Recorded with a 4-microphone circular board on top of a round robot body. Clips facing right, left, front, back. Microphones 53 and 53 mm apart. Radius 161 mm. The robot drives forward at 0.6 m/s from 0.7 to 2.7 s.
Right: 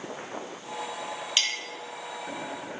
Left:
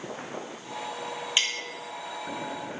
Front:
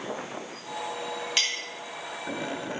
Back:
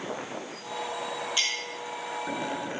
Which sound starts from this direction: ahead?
A clink, at 1.4 s.